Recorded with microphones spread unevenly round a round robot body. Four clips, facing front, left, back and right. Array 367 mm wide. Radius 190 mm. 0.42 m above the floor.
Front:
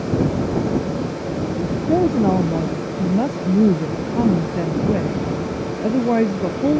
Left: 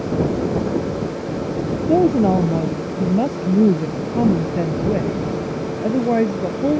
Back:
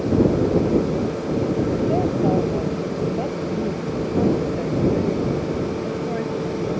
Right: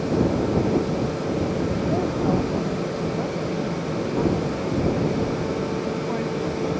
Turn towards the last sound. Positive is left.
turn(degrees=30)